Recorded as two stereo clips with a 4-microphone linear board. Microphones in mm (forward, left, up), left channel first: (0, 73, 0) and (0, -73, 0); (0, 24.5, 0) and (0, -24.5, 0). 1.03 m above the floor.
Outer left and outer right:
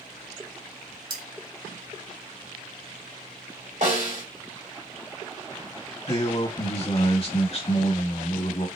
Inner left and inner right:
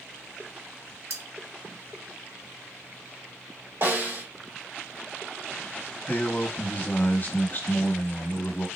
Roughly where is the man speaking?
Left.